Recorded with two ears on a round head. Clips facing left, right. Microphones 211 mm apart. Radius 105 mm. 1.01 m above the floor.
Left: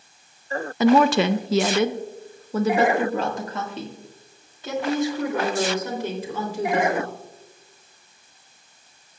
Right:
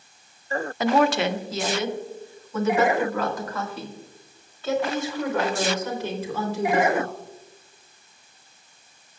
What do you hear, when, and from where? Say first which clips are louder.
0.8 s a woman speaking: left 4 dB; 80° left, 0.6 m; by 7.1 s 10° left (ahead or behind), 4 m